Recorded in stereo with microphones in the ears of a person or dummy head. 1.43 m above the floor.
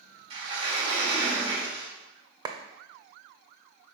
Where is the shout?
I don't hear a shout.